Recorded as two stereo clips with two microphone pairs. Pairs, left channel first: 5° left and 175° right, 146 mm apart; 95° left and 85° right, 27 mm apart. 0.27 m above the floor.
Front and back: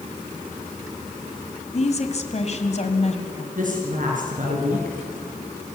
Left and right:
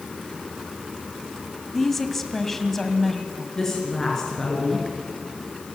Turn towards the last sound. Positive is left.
turn(degrees=165)